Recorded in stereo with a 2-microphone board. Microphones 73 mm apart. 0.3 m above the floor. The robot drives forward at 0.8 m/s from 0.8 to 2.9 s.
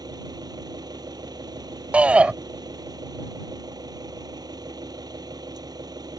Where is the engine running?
80° right.